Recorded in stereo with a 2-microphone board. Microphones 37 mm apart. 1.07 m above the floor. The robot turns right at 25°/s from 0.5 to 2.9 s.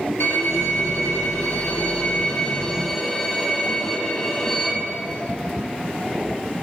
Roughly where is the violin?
Left.